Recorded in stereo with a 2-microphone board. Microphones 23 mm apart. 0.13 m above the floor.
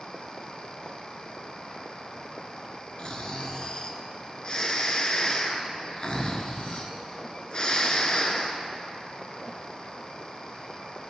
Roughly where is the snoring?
Left.